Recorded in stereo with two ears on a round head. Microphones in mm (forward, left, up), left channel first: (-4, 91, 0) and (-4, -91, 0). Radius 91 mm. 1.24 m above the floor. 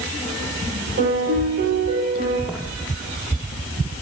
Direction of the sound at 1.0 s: 55° right (ahead or behind).